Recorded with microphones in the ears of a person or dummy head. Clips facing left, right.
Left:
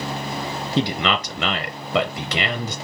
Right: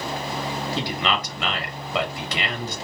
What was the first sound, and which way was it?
A man speaking, 75° left (ahead or behind).